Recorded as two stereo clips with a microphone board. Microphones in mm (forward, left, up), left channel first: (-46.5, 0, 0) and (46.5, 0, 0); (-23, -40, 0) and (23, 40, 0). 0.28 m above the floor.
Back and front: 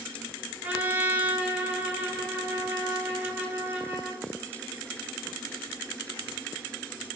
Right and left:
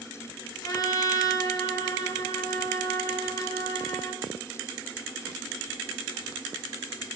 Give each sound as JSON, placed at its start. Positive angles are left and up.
{"t": 0.6, "sound": "a trumpet", "azimuth_deg": -75, "distance_m": 0.6}